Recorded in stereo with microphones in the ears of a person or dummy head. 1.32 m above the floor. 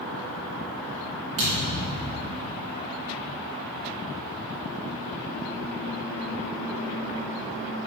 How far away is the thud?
About 2 m.